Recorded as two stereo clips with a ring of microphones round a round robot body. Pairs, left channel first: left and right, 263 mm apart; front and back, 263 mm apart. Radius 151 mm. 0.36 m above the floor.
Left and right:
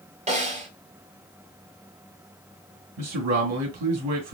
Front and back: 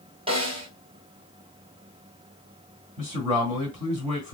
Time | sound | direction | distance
0.3 | a snare drum | 130° right | 1.6 m
3.0 | a man speaking | 110° right | 2.5 m